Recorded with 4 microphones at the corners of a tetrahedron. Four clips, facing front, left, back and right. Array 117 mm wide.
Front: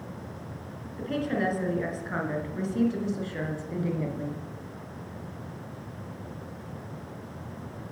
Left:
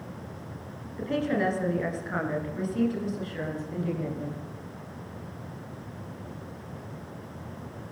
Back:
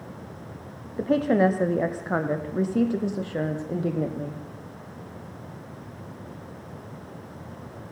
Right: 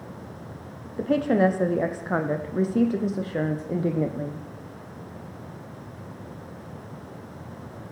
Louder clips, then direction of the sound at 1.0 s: Right 6 dB, back 8 dB; 140° right.